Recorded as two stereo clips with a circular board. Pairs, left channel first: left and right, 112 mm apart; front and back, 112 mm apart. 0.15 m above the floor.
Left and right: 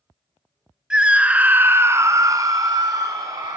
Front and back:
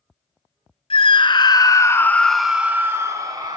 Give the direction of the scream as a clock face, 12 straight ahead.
12 o'clock.